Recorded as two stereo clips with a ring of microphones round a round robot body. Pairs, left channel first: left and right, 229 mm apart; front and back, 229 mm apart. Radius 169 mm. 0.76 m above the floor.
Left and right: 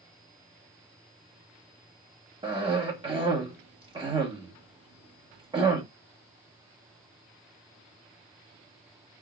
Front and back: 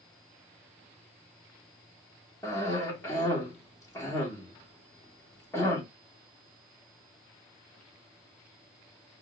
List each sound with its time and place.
2.4 s a cough: 60° right, 1.1 m